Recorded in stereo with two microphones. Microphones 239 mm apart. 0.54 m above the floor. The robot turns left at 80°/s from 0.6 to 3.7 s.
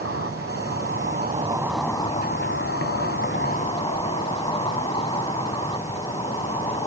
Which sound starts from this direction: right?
An insect, at 0.0 s.